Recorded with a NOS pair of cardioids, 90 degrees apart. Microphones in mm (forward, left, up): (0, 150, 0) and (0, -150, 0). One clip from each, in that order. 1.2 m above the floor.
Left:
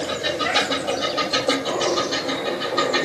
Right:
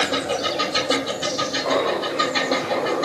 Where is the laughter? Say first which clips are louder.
Right 1 dB; 70° right, 3 m; by 3.0 s 60° right, 3.5 m.